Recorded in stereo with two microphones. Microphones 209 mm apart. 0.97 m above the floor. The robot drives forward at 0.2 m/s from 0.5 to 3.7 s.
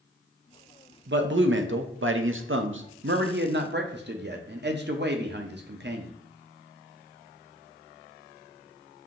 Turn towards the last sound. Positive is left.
turn(degrees=-55)  # may be behind; listen again after turning